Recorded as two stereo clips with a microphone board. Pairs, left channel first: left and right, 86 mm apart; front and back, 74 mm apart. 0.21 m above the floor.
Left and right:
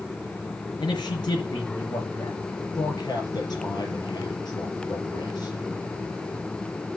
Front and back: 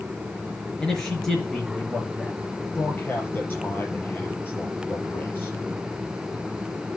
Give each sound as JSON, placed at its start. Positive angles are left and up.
{"t": 0.8, "sound": "a man speaking", "azimuth_deg": 80, "distance_m": 4.0}
{"t": 2.8, "sound": "a man speaking", "azimuth_deg": 60, "distance_m": 4.5}